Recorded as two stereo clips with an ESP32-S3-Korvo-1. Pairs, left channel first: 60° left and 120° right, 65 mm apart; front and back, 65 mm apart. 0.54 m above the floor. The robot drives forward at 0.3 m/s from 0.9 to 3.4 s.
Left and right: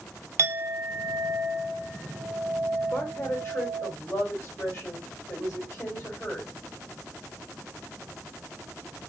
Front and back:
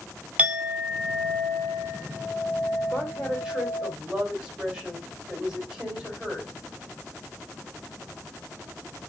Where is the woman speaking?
100° left, 1.8 m; by 6.5 s 105° left, 1.8 m.